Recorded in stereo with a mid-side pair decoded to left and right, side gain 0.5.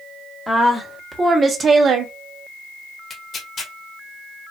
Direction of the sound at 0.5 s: 10° right.